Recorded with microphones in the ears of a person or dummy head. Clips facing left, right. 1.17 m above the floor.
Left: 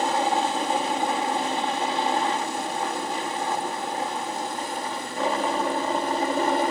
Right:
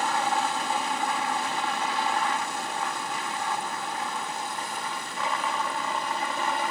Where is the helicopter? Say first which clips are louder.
Left 4 dB; 30° left (ahead or behind); by 6.7 s 35° left (ahead or behind).